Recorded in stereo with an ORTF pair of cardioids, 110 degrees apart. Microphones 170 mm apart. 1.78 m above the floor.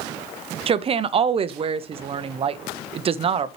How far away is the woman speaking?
About 0.8 m.